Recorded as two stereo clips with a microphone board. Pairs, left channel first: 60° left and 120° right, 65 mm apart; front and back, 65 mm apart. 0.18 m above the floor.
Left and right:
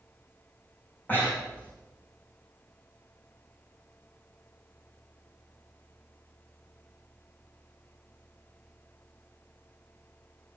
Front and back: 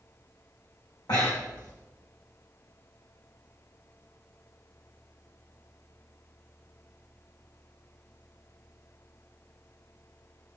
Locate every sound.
1.1 s breathing: straight ahead, 5 m